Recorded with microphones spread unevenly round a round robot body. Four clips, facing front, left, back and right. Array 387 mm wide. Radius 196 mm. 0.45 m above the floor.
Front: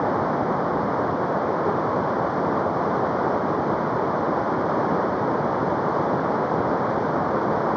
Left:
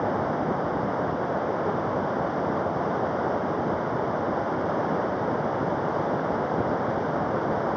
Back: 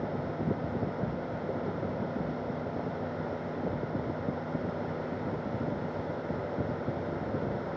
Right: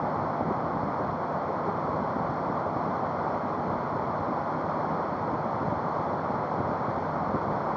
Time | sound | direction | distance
0.0 | running water | 20° left | ?